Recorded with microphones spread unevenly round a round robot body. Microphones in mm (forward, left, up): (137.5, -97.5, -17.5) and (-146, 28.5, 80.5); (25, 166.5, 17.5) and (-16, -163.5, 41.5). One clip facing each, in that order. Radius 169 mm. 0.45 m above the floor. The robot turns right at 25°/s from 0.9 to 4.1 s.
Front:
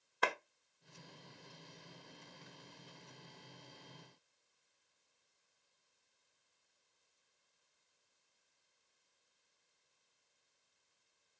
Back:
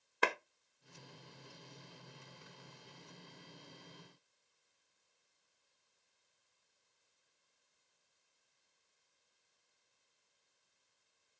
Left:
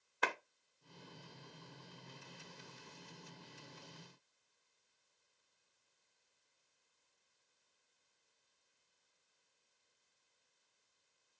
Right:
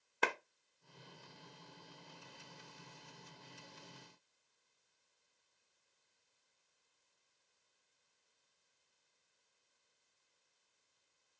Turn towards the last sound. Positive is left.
turn(degrees=-60)